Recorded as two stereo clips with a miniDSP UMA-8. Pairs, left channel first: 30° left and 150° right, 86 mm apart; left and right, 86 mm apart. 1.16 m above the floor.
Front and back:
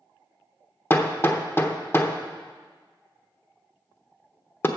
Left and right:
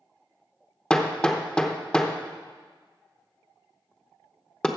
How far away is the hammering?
About 0.8 m.